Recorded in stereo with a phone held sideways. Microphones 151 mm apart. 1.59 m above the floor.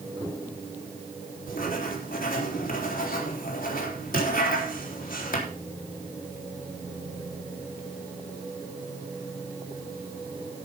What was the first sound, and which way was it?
Writing, 70° left (ahead or behind).